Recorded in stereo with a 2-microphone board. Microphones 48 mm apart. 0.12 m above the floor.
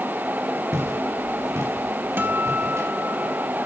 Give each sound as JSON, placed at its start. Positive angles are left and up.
{"t": 0.7, "sound": "footsteps", "side_deg": -90, "distance_m": 6.0}
{"t": 2.2, "sound": "a guitar", "side_deg": -45, "distance_m": 1.0}